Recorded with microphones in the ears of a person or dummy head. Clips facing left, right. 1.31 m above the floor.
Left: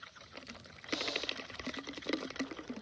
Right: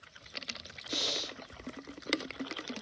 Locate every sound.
0.9 s breathing: 40° right (ahead or behind), 4 m